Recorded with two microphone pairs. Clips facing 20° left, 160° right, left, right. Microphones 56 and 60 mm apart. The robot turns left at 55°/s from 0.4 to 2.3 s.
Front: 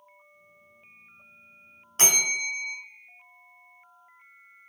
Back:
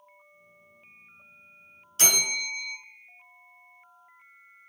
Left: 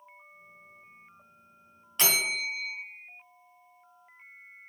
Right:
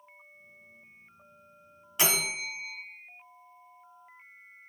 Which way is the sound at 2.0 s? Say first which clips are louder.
Front 1 dB, left 1 dB; 10° right.